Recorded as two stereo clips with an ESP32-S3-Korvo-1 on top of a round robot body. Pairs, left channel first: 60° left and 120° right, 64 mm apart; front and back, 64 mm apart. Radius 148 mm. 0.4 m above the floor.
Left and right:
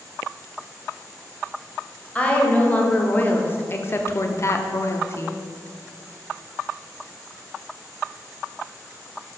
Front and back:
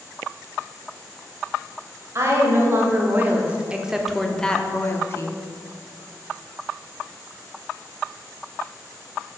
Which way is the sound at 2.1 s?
130° left.